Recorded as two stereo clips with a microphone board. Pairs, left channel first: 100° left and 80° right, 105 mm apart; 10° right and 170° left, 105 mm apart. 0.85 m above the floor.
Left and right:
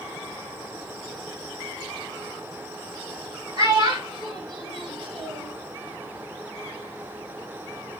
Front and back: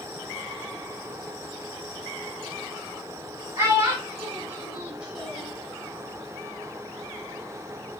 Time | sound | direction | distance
3.6 | a child speaking | 130° right | 3 m